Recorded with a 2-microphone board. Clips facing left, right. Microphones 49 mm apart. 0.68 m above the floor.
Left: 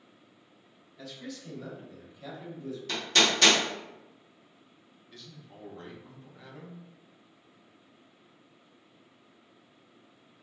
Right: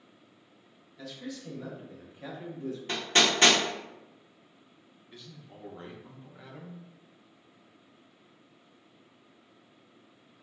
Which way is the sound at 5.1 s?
20° right (ahead or behind).